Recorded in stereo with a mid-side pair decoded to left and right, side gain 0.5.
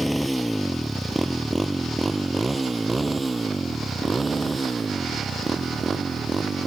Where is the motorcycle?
5° right; by 6.7 s 30° right.